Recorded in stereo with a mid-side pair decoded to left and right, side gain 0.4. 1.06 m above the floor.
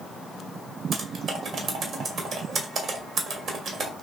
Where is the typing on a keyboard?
70° right, 1.4 m.